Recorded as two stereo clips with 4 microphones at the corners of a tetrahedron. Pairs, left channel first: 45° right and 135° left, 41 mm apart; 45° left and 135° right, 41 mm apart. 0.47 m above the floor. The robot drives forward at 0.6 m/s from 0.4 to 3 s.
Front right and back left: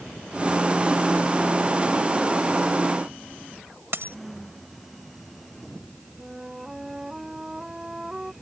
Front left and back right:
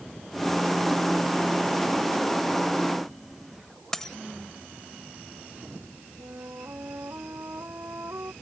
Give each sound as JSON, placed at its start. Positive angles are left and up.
{"t": 3.9, "sound": "a dropped coin", "azimuth_deg": 125}
{"t": 6.2, "sound": "a flute", "azimuth_deg": -150}